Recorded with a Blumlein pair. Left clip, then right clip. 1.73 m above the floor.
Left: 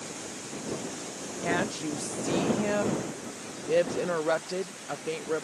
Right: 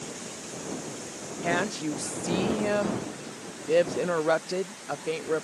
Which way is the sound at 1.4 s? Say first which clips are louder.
Right 2 dB; 10° right.